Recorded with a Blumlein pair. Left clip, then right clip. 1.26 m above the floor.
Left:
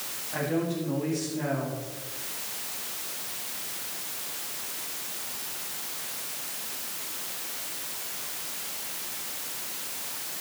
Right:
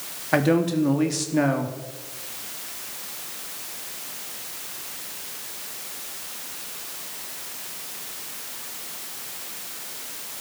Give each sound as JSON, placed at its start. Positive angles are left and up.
{"t": 0.3, "sound": "a man speaking", "azimuth_deg": -50, "distance_m": 3.0}